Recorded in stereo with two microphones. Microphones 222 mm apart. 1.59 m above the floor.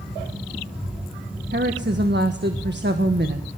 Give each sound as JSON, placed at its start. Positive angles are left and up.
{"t": 1.5, "sound": "a woman speaking", "side_deg": -50, "distance_m": 1.5}